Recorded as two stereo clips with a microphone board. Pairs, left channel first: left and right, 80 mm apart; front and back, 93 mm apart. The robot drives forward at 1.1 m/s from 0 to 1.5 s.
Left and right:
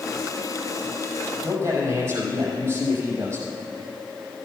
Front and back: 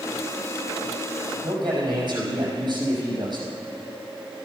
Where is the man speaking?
140° right, 5 m.